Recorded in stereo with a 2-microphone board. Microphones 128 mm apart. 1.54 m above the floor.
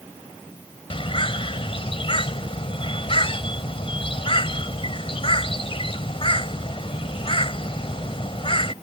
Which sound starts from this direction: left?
A bird, at 0.9 s.